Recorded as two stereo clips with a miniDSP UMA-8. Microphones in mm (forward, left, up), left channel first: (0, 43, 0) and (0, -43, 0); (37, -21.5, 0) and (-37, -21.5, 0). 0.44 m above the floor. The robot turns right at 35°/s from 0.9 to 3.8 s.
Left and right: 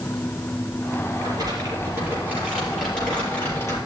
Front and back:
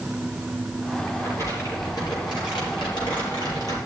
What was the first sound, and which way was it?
Crumpling, 55° right.